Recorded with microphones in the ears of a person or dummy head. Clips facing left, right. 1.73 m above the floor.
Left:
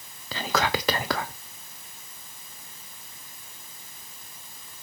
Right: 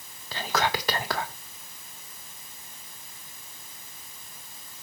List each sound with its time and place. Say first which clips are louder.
0.3 s whispering: left 1 dB; 65° left (ahead or behind), 1.1 m